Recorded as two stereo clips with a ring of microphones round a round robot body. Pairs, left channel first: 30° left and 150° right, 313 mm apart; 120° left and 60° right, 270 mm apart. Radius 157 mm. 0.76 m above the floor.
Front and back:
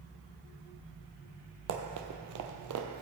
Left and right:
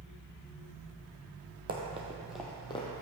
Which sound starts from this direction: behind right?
Running footsteps, at 1.7 s.